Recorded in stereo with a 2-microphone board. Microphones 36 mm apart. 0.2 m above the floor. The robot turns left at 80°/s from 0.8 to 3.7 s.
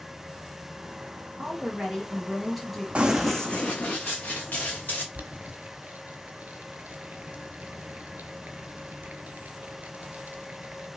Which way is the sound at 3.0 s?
35° right (ahead or behind).